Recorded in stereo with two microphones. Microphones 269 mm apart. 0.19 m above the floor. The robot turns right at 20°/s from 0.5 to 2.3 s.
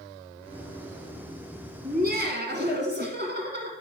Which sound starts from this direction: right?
Laughter, at 1.8 s.